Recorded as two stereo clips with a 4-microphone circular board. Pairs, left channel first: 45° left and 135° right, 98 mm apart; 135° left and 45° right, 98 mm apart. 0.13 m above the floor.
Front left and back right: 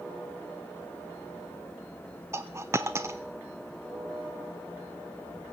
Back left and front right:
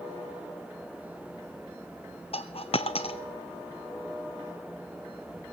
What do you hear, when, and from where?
2.3 s a dropped coin: 160° left, 0.7 m